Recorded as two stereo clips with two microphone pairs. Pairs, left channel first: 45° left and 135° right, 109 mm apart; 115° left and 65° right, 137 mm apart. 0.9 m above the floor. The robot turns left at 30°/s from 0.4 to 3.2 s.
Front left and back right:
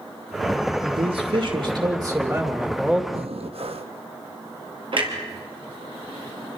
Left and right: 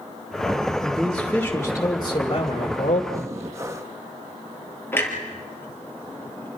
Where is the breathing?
130° right, 1.1 m.